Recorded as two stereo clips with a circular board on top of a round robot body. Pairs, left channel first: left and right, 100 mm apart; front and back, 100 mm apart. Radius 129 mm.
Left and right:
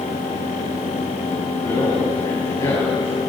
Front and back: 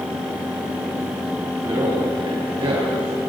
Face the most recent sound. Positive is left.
turn(degrees=135)